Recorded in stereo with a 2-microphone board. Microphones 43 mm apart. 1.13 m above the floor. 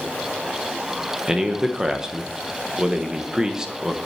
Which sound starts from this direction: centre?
A man speaking, at 1.3 s.